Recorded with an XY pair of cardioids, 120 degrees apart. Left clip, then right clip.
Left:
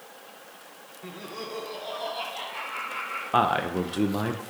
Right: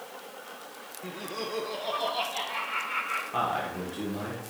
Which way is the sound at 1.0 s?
5° right.